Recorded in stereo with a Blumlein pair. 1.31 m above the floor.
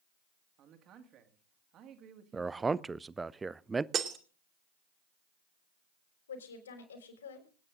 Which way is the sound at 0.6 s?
30° right.